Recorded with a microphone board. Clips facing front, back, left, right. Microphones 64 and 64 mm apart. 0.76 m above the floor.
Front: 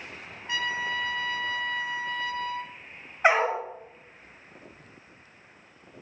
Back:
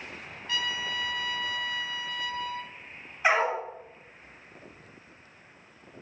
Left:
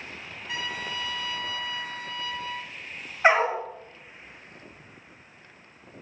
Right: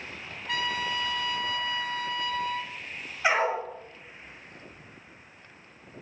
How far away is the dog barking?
About 1.6 m.